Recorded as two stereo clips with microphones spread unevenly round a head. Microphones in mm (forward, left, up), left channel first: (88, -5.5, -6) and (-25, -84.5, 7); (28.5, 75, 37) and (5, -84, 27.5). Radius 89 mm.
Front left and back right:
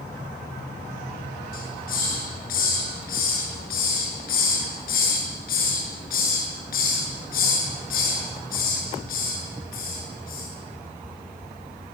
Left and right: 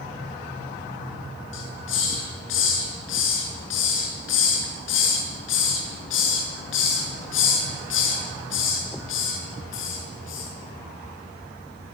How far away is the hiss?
About 7.5 m.